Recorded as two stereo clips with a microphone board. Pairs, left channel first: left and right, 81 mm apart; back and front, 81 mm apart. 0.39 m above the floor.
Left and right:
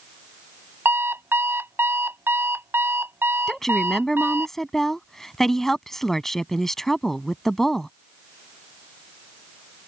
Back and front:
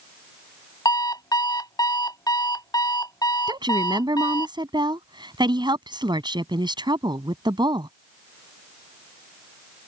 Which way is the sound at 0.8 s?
150° right.